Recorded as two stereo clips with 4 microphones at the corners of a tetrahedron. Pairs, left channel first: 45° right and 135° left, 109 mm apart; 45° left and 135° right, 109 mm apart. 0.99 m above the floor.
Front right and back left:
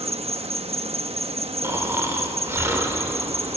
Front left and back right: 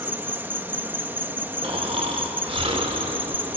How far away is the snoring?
About 2 m.